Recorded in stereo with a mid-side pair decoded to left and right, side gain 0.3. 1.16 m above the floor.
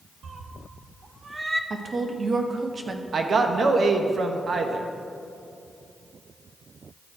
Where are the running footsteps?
I don't hear running footsteps.